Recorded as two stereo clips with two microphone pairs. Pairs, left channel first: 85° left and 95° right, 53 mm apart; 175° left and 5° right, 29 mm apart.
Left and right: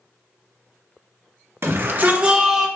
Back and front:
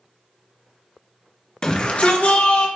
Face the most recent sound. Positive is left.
turn(degrees=180)